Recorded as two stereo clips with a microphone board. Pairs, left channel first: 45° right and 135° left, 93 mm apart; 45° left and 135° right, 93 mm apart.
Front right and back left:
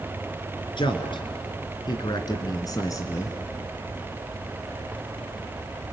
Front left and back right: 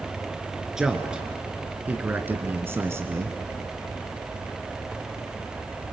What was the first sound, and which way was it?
A man speaking, 50° right.